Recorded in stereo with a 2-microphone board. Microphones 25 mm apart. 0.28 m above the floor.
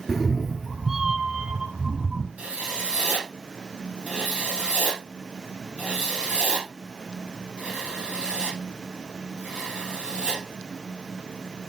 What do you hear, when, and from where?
0.1 s a cat meowing: 15° left (ahead or behind), 0.6 m; by 2.3 s 35° right (ahead or behind), 2 m
2.4 s writing: 75° right (ahead or behind), 3 m